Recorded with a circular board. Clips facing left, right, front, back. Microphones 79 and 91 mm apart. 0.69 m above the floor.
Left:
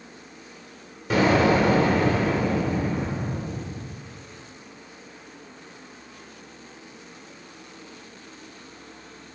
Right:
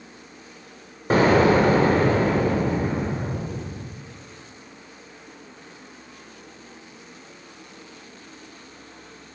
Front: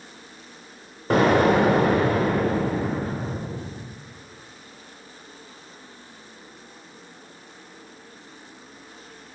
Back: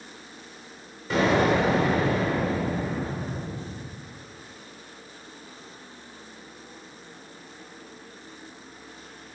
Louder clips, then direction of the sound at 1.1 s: Right 3 dB, front 4 dB; 40° right.